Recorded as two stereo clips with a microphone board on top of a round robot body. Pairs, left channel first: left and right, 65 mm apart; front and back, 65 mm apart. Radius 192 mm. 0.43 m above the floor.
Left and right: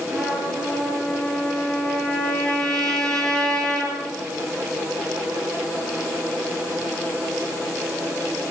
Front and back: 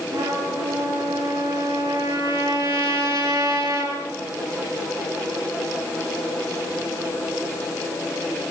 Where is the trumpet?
170° left, 8.5 m.